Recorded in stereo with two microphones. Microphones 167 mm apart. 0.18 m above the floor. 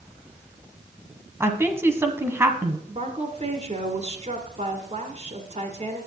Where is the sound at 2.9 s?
40° right (ahead or behind), 1.9 m.